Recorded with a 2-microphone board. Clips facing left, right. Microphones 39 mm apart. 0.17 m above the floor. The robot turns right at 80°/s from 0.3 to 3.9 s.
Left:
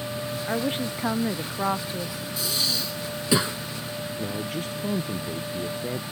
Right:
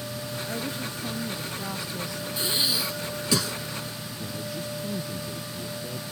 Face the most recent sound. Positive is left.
turn(degrees=50)  # may be behind; listen again after turning